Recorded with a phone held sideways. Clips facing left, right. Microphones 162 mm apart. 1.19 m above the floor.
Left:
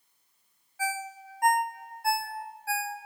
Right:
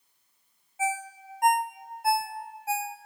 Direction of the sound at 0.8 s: 20° right (ahead or behind).